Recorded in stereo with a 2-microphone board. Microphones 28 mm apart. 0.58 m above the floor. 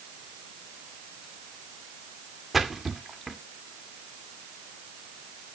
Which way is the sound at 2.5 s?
10° right (ahead or behind).